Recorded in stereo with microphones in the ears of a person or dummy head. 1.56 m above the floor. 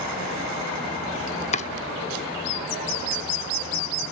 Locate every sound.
1.5 s chopping: 35° left (ahead or behind), 1.0 m